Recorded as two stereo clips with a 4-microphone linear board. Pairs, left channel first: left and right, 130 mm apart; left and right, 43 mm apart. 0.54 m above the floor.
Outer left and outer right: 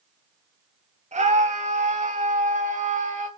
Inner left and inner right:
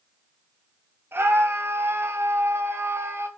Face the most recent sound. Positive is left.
turn(degrees=-80)